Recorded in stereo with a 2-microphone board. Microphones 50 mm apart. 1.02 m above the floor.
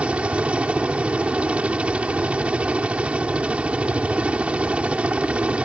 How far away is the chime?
No chime in this recording.